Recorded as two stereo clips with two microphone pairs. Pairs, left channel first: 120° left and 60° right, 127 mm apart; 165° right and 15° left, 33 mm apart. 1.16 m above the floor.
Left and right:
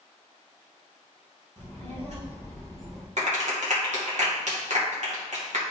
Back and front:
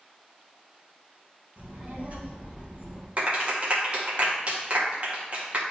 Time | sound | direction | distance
1.6 | a child speaking | 20° right | 3 m
3.2 | a clap | 35° right | 1.8 m